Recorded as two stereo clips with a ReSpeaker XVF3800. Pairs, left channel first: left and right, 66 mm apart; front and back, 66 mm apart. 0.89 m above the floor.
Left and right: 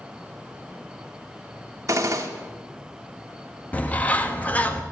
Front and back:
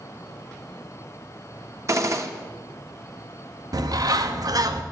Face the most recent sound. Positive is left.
turn(degrees=155)